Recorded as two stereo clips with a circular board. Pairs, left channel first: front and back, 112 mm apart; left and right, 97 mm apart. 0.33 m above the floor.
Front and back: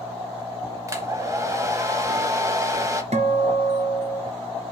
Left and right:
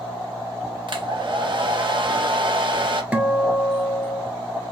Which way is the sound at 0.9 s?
120° right.